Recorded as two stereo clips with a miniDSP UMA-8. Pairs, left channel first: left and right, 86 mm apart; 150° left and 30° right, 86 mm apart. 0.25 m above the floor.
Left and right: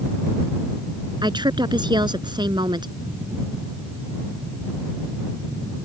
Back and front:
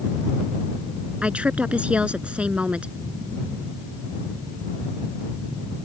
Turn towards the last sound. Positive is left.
turn(degrees=-105)